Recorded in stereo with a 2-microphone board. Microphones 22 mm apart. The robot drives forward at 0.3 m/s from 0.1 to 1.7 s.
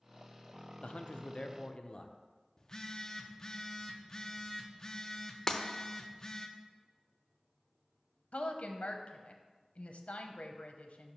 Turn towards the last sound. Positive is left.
turn(degrees=80)